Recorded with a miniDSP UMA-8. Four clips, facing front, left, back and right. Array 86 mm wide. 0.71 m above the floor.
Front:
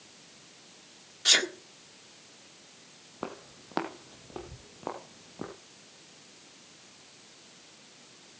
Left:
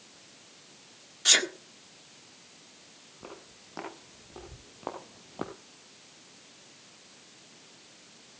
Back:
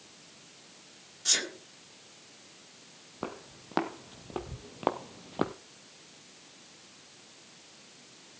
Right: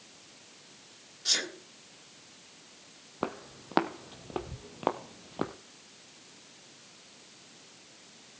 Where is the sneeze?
50° left, 1.6 m.